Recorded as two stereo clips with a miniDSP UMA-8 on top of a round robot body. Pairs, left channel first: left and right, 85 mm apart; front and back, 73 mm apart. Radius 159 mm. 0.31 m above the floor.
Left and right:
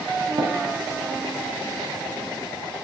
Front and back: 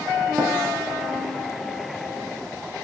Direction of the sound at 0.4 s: 115° right.